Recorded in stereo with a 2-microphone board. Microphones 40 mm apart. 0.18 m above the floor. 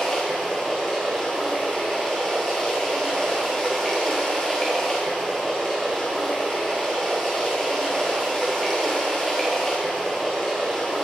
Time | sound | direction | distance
0.0 | running water | 10° left (ahead or behind) | 2 m